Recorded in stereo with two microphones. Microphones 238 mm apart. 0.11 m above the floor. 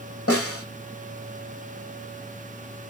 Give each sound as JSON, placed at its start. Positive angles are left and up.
{"t": 0.3, "sound": "a snare drum", "side_deg": 70, "distance_m": 4.0}